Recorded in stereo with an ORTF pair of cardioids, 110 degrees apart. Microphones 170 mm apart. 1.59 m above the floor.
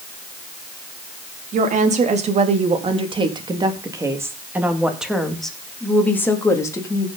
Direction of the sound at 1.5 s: 45° right.